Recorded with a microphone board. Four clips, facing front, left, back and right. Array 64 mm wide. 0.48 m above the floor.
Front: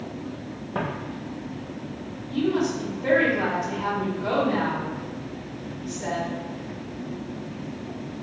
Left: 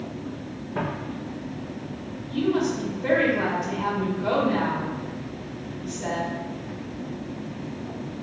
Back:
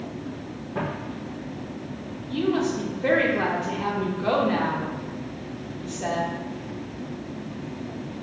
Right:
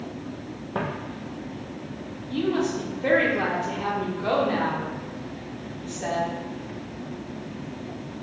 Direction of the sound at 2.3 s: 145° right.